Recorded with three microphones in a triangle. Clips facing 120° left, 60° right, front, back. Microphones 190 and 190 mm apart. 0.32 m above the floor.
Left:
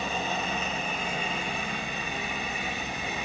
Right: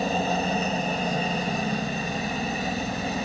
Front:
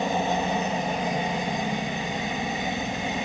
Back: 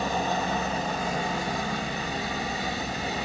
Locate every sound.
0.0 s a helicopter: 60° right